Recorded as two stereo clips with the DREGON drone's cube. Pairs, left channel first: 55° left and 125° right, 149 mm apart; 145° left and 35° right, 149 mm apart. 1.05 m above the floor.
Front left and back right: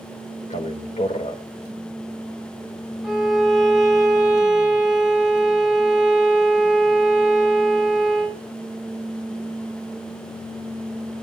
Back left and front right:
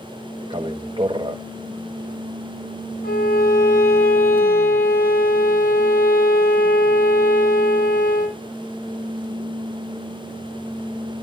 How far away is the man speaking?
About 1.1 m.